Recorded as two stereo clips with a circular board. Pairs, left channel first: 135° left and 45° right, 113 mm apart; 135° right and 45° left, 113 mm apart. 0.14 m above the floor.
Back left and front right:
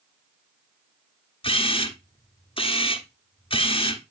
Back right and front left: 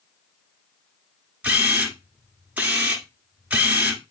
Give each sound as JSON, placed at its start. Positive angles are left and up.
{"t": 1.4, "sound": "a camera shutter", "azimuth_deg": 120, "distance_m": 1.2}